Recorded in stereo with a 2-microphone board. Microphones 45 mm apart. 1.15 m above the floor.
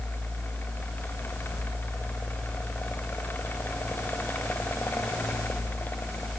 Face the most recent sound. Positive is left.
No sound to turn to.